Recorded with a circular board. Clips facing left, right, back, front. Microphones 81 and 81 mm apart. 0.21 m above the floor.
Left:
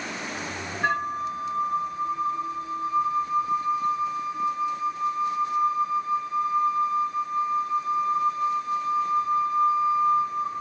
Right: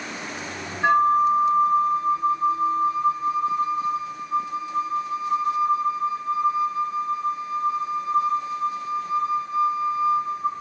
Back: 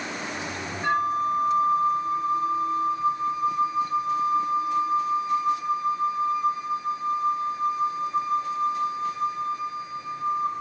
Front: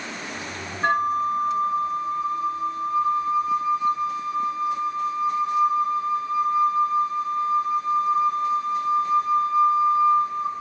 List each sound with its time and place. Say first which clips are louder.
0.8 s a flute: right 10 dB, front 2 dB; 20° right, 0.9 m